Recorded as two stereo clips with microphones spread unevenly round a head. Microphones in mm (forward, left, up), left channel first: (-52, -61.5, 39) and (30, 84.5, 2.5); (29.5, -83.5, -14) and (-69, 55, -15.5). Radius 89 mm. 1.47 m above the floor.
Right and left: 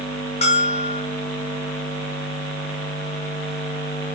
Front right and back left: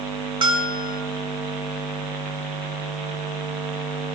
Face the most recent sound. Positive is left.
turn(degrees=-170)